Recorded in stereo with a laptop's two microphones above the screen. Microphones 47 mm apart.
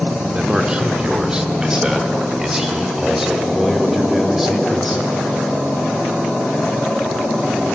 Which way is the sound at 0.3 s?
20° right (ahead or behind).